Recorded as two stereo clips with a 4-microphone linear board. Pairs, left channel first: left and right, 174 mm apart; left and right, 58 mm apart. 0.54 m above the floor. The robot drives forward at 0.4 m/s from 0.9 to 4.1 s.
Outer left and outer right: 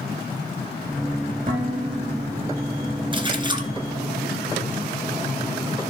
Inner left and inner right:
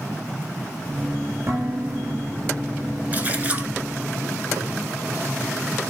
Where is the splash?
30° right (ahead or behind), 1.6 m; by 3.7 s 25° right (ahead or behind), 1.8 m.